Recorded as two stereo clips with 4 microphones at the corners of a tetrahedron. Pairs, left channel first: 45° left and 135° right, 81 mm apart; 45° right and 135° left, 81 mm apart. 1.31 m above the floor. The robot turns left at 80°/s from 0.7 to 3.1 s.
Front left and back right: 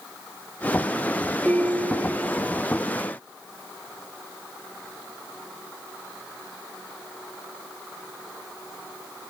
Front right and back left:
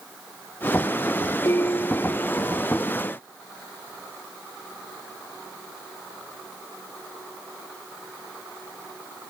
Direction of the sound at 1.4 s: 65° right.